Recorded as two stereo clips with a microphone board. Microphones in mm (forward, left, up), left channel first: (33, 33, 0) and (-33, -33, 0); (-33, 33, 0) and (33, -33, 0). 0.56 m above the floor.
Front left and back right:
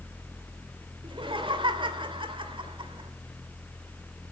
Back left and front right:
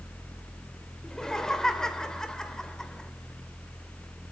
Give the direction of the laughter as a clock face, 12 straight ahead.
5 o'clock.